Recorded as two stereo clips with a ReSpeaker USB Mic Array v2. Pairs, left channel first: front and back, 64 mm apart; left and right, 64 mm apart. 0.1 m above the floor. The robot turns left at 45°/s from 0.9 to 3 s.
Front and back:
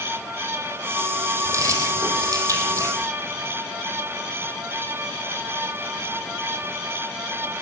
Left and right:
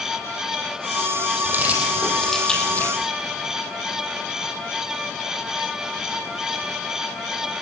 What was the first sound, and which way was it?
Keys jangling, 145° right.